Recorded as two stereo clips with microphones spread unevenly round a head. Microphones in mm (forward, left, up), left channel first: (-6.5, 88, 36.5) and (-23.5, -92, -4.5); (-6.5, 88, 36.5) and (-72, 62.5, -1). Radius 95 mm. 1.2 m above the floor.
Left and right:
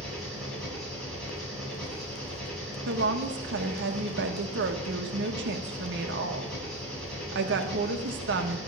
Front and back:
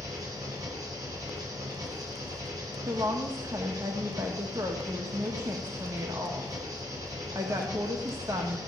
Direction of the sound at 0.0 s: 170° left.